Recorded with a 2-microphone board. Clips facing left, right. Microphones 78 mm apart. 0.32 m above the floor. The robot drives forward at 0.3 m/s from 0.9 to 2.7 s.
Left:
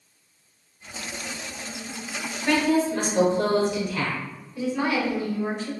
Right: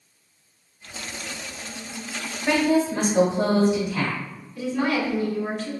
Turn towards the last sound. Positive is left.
turn(degrees=15)  # may be behind; listen again after turning